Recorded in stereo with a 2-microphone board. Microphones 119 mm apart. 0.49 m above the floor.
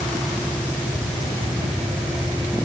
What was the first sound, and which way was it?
Only background noise.